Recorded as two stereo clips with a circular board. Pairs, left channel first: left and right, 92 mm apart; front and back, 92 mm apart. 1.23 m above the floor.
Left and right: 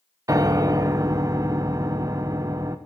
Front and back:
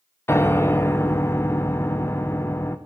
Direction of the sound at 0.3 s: 50° right.